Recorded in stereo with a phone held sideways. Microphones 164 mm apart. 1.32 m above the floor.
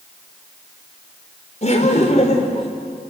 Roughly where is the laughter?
Left.